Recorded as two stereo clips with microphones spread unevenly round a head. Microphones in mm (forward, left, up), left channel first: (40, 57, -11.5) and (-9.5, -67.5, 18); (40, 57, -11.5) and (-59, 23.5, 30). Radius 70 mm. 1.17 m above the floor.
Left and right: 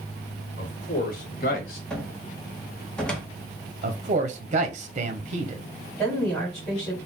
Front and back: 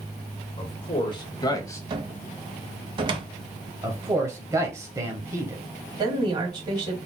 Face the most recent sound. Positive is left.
turn(degrees=150)